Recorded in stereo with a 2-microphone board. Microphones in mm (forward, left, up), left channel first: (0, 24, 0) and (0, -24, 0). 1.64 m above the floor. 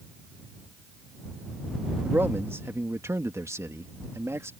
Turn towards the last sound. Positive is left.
turn(degrees=-70)  # may be behind; listen again after turning